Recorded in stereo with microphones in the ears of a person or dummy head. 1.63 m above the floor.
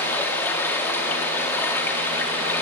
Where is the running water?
10° left (ahead or behind), 2 m.